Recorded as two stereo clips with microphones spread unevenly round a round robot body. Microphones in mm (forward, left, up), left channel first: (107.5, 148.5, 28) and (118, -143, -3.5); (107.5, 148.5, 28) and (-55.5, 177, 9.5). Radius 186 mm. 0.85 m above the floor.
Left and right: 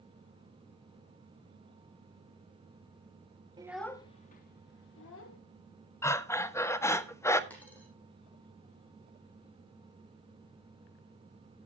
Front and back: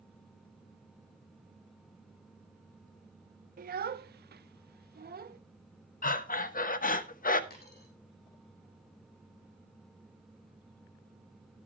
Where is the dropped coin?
10° left, 6.5 m.